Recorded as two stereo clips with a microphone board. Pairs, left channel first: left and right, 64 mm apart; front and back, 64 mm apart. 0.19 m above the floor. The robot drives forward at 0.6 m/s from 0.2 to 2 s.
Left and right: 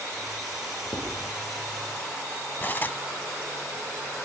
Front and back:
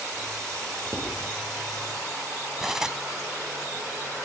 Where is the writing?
130° left, 9 m.